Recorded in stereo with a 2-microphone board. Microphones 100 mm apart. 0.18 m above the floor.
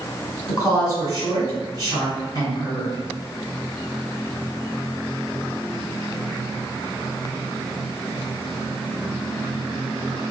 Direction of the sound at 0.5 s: 40° left (ahead or behind).